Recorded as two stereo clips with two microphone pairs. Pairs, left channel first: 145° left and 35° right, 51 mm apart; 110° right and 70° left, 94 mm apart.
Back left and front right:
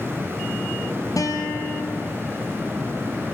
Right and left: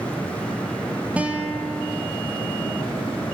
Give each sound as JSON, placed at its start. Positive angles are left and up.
{"t": 1.2, "sound": "a guitar", "azimuth_deg": 145, "distance_m": 3.0}